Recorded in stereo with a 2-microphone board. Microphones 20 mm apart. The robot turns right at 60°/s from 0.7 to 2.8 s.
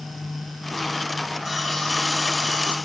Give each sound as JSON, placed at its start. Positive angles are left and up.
{"t": 1.4, "sound": "sawing", "azimuth_deg": -15, "distance_m": 4.0}